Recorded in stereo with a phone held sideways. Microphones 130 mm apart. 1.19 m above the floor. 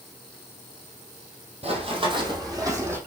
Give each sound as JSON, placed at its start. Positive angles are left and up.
{"t": 1.6, "sound": "running footsteps", "side_deg": -50, "distance_m": 3.0}